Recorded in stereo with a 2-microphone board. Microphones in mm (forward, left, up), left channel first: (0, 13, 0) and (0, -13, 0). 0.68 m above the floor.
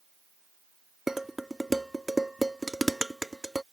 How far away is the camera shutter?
No camera shutter in this recording.